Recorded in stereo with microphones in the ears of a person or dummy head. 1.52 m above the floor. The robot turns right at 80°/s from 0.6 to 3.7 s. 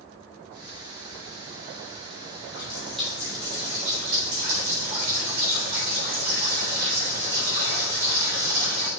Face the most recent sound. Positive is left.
turn(degrees=-125)